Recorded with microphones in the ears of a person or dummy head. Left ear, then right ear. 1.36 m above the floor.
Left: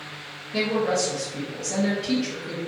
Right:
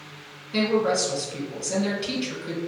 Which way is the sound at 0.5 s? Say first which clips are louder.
Right 1 dB; 50° right (ahead or behind).